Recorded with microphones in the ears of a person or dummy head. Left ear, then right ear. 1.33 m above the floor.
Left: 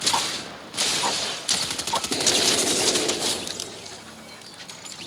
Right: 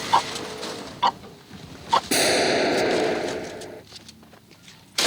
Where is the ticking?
20° right (ahead or behind).